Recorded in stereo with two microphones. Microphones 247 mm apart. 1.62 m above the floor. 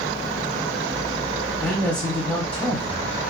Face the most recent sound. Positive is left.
turn(degrees=5)  # may be behind; listen again after turning